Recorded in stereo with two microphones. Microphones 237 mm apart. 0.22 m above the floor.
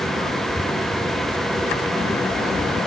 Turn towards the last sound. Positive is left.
No sound to turn to.